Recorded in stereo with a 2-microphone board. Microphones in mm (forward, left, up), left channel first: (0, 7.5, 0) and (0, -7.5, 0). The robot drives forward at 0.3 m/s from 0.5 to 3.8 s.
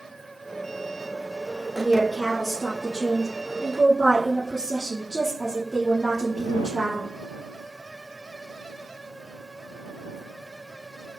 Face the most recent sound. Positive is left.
turn(degrees=10)  # may be behind; listen again after turning